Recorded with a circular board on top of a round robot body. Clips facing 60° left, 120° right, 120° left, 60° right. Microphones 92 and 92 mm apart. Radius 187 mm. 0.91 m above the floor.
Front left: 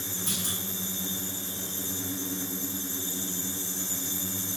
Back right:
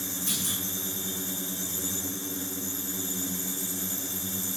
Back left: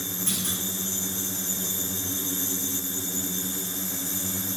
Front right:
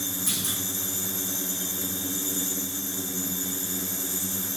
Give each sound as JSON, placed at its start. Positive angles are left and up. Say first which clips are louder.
{"t": 0.3, "sound": "a clunk", "louder": "front left 2 dB, back left 1 dB", "azimuth_deg": 15, "distance_m": 2.5}